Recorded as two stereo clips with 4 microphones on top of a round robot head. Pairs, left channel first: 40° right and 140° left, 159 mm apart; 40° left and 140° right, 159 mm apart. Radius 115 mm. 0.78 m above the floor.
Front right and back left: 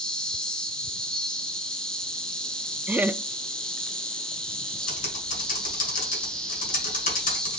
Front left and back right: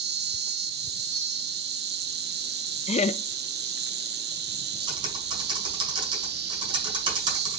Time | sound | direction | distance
0.0 | an insect | 125° right | 0.8 m
2.9 | laughter | 65° left | 0.5 m
4.9 | typing on a keyboard | 80° right | 1.7 m